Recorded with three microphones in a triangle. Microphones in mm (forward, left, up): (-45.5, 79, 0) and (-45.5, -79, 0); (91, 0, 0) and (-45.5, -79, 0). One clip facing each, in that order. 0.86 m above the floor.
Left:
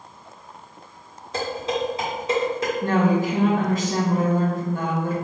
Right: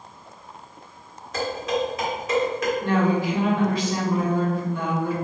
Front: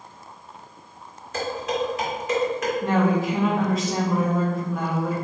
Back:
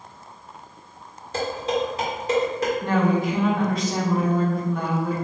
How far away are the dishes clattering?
About 1.4 m.